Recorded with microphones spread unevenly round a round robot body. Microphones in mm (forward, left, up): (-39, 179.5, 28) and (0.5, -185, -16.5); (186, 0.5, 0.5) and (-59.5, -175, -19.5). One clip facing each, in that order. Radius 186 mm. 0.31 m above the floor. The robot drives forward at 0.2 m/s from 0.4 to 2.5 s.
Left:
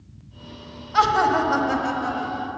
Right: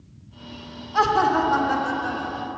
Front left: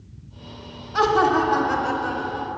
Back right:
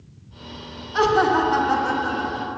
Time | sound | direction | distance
0.9 | laughter | 130° left | 1.5 m